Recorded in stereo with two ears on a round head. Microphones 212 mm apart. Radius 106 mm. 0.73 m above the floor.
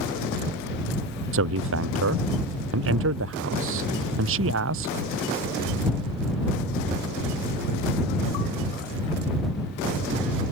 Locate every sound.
1.3 s a man speaking: 60° right (ahead or behind)